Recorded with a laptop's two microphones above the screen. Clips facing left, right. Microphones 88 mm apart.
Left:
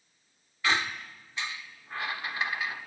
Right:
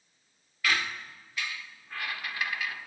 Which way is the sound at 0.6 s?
25° left (ahead or behind).